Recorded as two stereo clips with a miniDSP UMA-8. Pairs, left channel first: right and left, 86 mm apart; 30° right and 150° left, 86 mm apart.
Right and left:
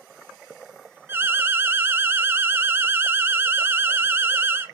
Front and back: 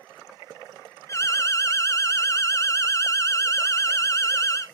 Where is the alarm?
25° left, 0.5 m.